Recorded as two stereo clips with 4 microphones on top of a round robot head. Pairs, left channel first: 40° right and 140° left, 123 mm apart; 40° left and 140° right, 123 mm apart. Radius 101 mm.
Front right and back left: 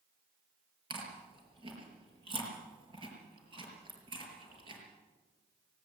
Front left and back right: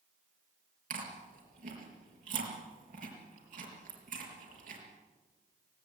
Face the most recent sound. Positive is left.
turn(degrees=-165)